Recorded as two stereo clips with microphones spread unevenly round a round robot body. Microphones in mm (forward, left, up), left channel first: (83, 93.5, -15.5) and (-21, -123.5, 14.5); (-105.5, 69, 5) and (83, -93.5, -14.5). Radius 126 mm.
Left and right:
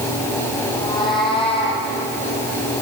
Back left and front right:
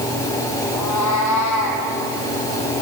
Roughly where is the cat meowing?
Behind left.